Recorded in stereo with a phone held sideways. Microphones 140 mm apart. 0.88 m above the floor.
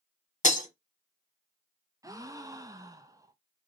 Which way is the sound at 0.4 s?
60° left (ahead or behind).